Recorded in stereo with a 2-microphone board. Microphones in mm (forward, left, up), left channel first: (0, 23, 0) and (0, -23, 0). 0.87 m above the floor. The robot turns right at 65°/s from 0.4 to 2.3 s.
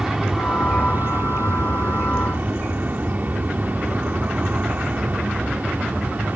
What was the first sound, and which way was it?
An aircraft, 170° right.